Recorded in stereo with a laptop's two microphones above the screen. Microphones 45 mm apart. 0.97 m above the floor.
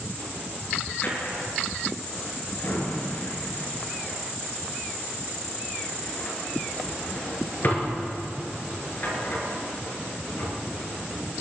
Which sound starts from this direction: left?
A drawer, at 1.0 s.